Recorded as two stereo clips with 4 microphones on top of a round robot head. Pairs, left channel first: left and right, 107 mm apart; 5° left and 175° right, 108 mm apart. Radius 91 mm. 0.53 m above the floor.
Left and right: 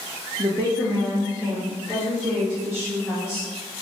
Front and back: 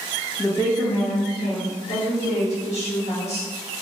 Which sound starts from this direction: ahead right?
A woman speaking, at 0.4 s.